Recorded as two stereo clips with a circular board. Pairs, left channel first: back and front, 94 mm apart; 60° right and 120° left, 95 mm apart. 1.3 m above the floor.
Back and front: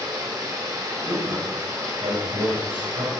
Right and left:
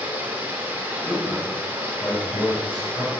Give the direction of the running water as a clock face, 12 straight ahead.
10 o'clock.